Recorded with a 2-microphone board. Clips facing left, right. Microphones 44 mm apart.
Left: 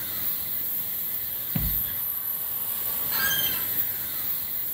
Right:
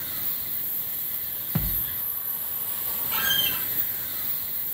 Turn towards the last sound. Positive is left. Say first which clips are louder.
# right 2 dB
turn(degrees=-50)  # may be behind; listen again after turning